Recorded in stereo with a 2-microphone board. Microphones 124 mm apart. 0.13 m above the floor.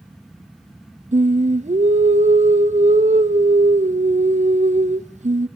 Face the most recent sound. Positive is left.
turn(degrees=-75)  # may be behind; listen again after turning